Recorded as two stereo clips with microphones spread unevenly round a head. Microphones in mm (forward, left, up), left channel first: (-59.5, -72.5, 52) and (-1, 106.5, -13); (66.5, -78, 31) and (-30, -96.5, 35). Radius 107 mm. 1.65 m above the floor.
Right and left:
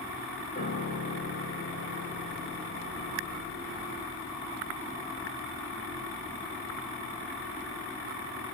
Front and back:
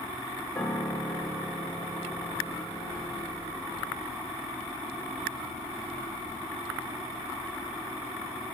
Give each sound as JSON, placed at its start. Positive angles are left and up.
{"t": 0.6, "sound": "a piano", "azimuth_deg": -50, "distance_m": 1.3}